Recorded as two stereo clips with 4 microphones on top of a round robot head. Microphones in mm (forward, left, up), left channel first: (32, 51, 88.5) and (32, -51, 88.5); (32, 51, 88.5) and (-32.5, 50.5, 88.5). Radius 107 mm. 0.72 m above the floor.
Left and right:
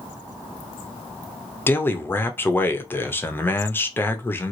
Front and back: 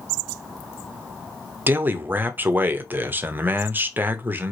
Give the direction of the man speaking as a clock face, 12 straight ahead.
7 o'clock.